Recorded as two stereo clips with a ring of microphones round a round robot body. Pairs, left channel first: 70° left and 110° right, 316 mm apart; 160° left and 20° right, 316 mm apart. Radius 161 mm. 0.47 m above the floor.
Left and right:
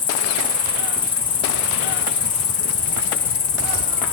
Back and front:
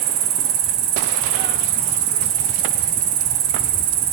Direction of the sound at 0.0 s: 10° right.